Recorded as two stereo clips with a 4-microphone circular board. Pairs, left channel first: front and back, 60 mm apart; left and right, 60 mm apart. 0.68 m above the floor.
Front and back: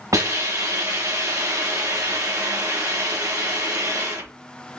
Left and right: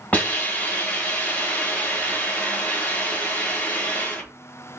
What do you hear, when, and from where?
0.1 s a hiss: 155° left, 2.0 m